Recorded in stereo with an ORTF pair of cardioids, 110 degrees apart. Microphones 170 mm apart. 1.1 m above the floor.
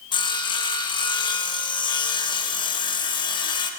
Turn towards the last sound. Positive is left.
turn(degrees=30)